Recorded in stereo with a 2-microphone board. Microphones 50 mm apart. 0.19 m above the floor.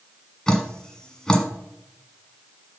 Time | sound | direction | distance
0.5 | dripping | 15° left (ahead or behind) | 1.4 m